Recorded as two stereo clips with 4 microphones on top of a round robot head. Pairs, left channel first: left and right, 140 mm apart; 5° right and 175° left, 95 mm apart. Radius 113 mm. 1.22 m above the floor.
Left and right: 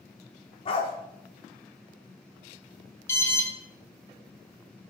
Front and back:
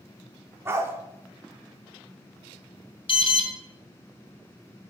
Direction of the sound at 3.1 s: 15° left.